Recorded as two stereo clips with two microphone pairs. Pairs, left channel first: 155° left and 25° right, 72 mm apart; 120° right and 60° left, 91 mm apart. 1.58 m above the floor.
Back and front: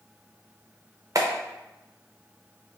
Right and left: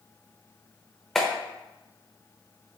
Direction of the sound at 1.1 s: 35° right.